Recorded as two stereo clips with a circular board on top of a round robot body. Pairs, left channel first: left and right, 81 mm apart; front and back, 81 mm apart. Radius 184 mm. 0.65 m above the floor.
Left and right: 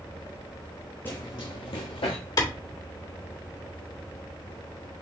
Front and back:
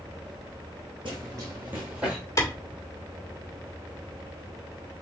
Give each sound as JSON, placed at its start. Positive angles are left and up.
{"t": 1.1, "sound": "running footsteps", "azimuth_deg": 155, "distance_m": 0.7}
{"t": 2.4, "sound": "a clap", "azimuth_deg": 50, "distance_m": 2.5}